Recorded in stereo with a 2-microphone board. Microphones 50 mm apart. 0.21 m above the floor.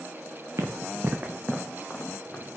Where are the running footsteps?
80° right, 1.4 m; by 2.4 s 35° left (ahead or behind), 2 m.